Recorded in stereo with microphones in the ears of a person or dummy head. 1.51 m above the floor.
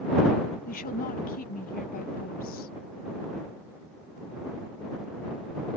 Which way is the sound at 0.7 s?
40° left (ahead or behind).